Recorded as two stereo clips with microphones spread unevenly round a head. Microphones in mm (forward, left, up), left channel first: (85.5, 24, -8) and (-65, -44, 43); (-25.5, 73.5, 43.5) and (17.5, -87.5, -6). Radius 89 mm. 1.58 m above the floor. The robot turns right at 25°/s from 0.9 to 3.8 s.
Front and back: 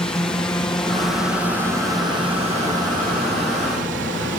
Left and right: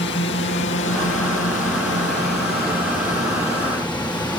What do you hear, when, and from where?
0.0 s a drone: 95° left; by 4.4 s 175° left